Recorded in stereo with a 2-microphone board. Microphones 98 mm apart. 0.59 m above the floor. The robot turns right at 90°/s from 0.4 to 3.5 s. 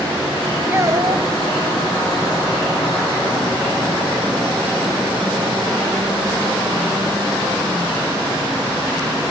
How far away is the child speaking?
About 2.5 m.